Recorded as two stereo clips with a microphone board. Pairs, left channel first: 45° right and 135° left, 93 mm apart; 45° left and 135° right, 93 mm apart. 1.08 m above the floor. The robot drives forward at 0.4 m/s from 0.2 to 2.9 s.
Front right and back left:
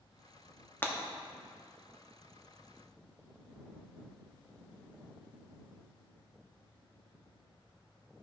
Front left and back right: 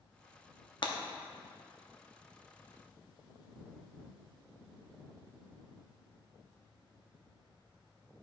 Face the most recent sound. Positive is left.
turn(degrees=115)